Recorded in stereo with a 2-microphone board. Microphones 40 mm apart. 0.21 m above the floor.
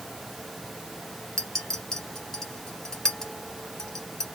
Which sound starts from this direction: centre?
A clink, at 1.4 s.